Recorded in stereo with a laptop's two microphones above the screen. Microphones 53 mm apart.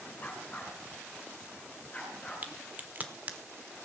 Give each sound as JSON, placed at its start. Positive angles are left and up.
{"t": 0.2, "sound": "a dog barking", "side_deg": 30, "distance_m": 4.5}
{"t": 2.4, "sound": "a crack", "side_deg": -30, "distance_m": 1.1}